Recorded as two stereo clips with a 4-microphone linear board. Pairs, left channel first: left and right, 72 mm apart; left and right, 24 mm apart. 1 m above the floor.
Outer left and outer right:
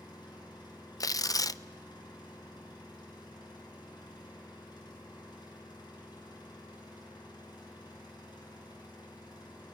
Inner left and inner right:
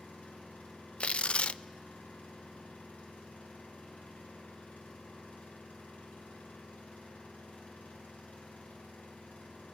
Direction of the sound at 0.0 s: 85° left.